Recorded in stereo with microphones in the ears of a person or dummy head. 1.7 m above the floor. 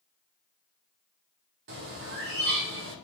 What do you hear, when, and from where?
1.7 s a bird: 60° right (ahead or behind), 1.1 m